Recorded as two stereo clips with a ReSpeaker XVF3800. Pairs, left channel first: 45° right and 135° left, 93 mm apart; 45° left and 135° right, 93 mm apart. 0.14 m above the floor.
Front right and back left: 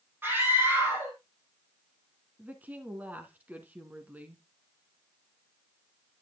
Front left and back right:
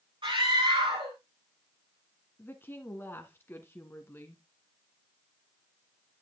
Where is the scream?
160° right, 4.5 m.